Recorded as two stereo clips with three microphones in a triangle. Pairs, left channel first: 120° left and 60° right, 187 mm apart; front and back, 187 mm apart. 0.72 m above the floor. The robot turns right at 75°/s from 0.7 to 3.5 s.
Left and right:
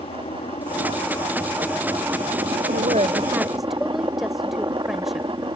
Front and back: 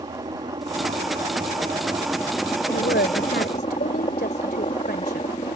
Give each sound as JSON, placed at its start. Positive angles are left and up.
{"t": 0.0, "sound": "a helicopter", "azimuth_deg": 140}
{"t": 2.7, "sound": "a woman speaking", "azimuth_deg": -35}